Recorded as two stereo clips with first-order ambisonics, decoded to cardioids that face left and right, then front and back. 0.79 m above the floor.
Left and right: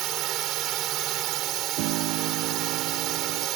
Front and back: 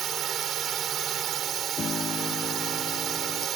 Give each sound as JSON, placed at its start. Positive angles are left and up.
{"t": 0.0, "sound": "a drone", "azimuth_deg": -125}
{"t": 1.8, "sound": "a piano", "azimuth_deg": -70}